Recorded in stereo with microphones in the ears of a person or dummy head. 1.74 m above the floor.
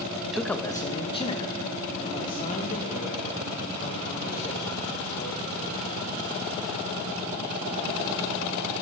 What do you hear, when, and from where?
0.2 s a man speaking: 5° right (ahead or behind), 0.6 m; by 6.0 s 50° left (ahead or behind), 4.5 m